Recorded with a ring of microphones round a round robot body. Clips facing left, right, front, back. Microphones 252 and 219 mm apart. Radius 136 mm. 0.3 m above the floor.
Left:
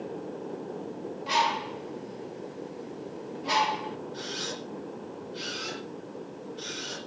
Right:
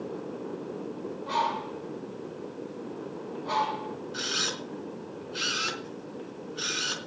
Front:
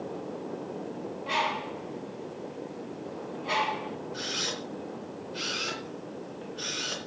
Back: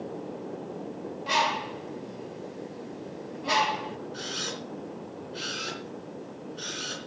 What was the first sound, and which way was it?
A bird, 140° left.